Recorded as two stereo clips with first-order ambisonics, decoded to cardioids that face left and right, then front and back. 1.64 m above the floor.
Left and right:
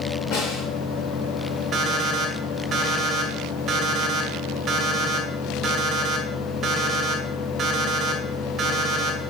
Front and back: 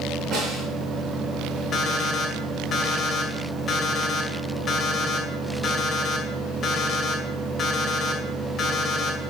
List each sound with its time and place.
0.3 s a snare drum: 120° left, 3.5 m
1.7 s an alarm clock: 40° right, 1.6 m